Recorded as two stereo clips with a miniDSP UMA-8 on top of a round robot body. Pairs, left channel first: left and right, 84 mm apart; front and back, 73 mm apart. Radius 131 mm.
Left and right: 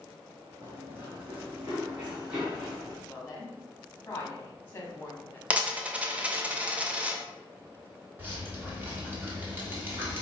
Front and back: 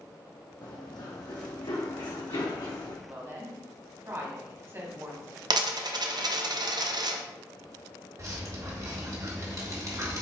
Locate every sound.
0.6 s running footsteps: 30° right, 0.8 m; by 3.0 s 15° right, 2.0 m
3.1 s a woman speaking: 145° left, 1.4 m
5.5 s a dropped coin: 165° right, 0.6 m
8.2 s dripping: 150° right, 1.4 m